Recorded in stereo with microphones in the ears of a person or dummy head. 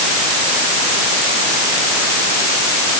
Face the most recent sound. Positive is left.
No sound to turn to.